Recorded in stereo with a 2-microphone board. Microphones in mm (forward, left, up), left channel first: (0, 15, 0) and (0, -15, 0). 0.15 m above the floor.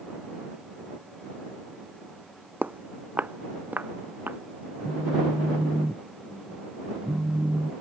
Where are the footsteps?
75° right (ahead or behind); by 4.4 s 80° right.